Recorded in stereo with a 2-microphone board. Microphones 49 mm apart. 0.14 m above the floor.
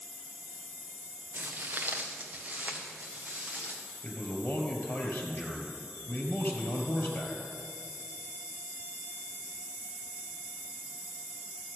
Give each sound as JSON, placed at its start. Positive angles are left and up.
{"t": 1.3, "sound": "footsteps", "side_deg": -45, "distance_m": 0.7}
{"t": 4.0, "sound": "a man speaking", "side_deg": 40, "distance_m": 2.5}